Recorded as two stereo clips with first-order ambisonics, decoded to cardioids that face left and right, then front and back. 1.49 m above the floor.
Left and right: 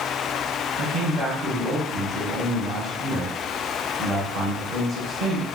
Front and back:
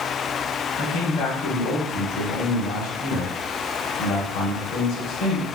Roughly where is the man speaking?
Ahead right.